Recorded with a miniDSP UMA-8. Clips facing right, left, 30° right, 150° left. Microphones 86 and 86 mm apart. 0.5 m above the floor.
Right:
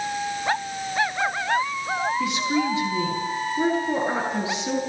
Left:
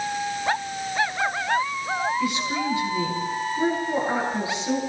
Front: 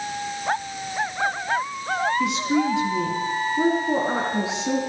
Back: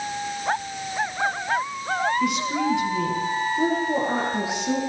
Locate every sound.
2.2 s a woman speaking: 25° right, 9 m